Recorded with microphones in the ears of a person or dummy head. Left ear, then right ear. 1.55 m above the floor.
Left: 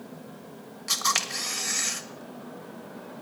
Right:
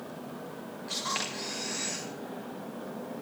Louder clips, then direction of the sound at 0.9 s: Left 7 dB; 45° left (ahead or behind).